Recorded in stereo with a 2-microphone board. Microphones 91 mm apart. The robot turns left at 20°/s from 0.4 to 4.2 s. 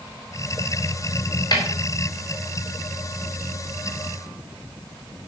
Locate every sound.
1.5 s a snare drum: 45° left (ahead or behind), 5 m; by 1.6 s 40° left (ahead or behind), 5 m